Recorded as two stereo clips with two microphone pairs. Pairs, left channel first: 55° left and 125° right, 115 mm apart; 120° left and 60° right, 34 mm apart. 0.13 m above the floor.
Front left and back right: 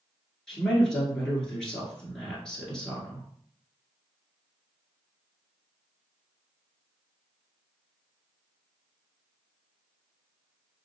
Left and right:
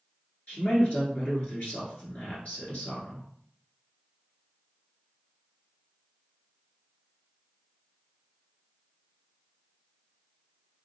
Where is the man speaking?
135° left, 1.8 m.